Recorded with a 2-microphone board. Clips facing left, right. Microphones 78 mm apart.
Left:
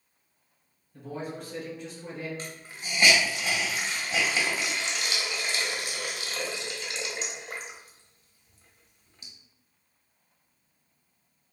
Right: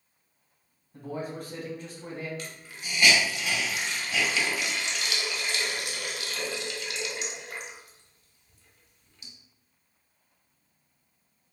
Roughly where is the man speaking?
Right.